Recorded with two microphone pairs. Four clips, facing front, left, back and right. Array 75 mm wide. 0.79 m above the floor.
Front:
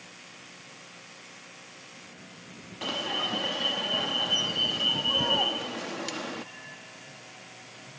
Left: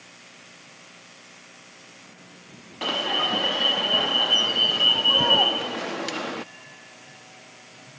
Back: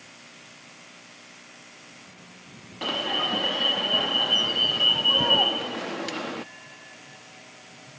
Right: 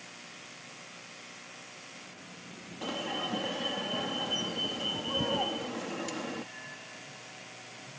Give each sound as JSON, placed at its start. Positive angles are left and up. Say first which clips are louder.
{"t": 2.8, "sound": "an alarm", "louder": "left 9 dB, back 4 dB", "azimuth_deg": 105}